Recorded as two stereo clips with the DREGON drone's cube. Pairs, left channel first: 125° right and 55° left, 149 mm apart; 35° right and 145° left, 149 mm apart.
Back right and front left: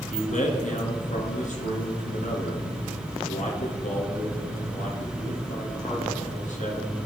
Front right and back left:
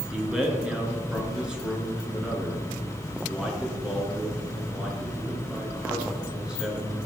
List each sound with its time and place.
0.1 s a man speaking: 130° right, 2 m